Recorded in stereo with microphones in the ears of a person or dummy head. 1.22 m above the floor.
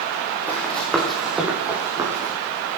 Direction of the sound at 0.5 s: 10° left (ahead or behind).